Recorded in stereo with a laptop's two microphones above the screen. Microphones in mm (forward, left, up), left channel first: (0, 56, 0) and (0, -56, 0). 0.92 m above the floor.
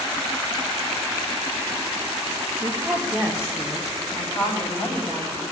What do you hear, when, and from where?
2.6 s a woman speaking: 25° right (ahead or behind), 1.4 m; by 5.4 s 70° left (ahead or behind), 3.5 m